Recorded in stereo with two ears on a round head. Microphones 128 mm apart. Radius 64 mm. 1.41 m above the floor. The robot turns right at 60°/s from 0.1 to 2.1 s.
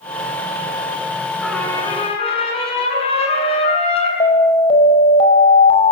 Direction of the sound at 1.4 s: Straight ahead.